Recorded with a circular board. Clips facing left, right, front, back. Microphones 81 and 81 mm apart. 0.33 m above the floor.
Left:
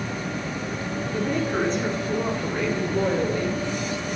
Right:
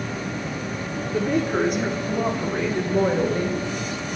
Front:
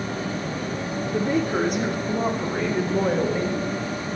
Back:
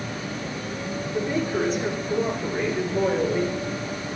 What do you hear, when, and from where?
1.1 s a woman speaking: 5° right, 4 m; by 3.6 s 30° right, 4 m